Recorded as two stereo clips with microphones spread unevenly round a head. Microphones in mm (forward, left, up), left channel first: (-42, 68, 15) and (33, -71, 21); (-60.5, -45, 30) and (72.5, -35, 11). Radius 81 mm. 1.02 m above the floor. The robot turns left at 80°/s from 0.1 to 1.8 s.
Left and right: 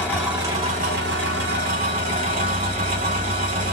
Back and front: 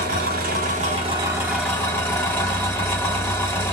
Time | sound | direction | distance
0.0 | an engine running | 35° left | 1.7 m